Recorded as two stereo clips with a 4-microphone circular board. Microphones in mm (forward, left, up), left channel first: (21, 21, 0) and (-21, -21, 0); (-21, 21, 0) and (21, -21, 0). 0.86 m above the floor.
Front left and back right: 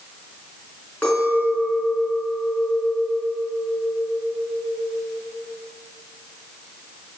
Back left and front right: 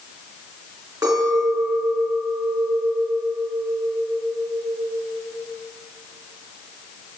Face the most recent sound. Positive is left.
turn(degrees=-25)